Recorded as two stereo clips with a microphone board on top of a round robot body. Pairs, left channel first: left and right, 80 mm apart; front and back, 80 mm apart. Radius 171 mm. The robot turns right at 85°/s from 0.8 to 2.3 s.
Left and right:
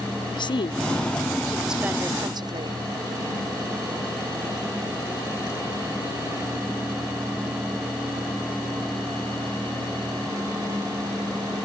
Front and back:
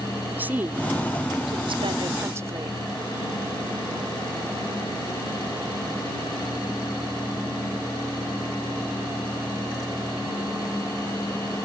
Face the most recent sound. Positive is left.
turn(degrees=-120)